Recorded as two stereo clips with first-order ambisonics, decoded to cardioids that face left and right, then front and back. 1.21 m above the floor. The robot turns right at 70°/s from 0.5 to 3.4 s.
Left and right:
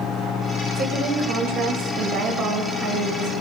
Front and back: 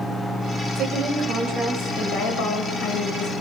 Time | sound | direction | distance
0.8 | a woman speaking | 135° right | 5 m